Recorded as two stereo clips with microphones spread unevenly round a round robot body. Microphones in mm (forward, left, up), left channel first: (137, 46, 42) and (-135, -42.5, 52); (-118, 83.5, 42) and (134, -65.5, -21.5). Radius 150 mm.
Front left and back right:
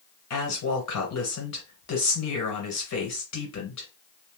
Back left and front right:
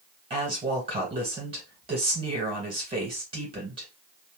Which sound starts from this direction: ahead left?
A woman speaking, at 0.3 s.